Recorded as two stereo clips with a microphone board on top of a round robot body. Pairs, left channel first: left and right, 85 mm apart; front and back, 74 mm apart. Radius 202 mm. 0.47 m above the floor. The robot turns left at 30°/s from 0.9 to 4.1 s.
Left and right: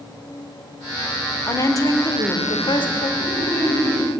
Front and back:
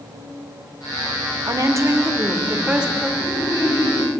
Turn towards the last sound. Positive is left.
turn(degrees=10)